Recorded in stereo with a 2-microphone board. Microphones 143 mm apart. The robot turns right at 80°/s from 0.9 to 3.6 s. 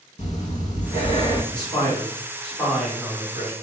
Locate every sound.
0.2 s breathing: 110° left, 0.5 m; by 1.4 s 150° left, 0.5 m
1.5 s a man speaking: 30° left (ahead or behind), 1.4 m; by 3.5 s 25° right (ahead or behind), 1.4 m